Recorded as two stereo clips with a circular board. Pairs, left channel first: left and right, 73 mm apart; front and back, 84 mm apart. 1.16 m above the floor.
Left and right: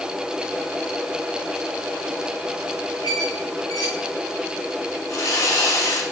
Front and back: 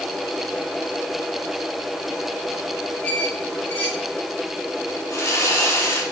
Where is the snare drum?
I don't hear a snare drum.